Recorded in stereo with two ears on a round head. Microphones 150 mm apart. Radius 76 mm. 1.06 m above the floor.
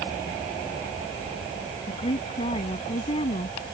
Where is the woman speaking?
35° left (ahead or behind).